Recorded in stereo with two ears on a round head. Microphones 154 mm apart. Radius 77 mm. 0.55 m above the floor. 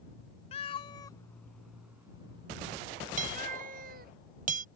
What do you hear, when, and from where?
0.5 s a cat meowing: 40° left (ahead or behind); by 4.1 s 60° right (ahead or behind)
3.2 s hammering: 50° right (ahead or behind)